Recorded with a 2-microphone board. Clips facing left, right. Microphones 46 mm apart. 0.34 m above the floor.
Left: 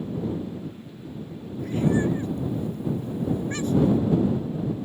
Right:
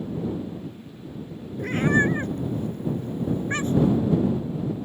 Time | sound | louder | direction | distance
1.6 | a cat meowing | right 2 dB | 60° right (ahead or behind) | ?